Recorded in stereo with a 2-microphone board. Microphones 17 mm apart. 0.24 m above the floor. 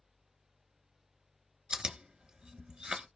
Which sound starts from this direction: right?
Chewing, at 1.7 s.